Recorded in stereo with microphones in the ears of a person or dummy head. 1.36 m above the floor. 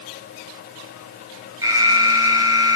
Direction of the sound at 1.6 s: 15° right (ahead or behind).